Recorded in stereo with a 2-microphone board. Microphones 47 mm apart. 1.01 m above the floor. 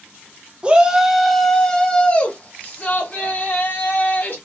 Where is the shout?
20° right (ahead or behind), 0.8 m; by 4.4 s 45° left (ahead or behind), 2 m.